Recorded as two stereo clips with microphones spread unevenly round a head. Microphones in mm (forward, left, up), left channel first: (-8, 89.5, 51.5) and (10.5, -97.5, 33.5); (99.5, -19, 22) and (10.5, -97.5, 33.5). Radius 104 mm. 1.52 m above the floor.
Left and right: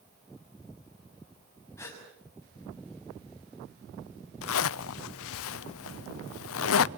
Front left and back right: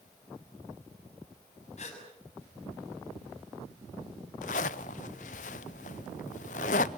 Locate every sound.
1.8 s a gasp: 20° left, 6 m
4.4 s a zipper: 80° left, 0.5 m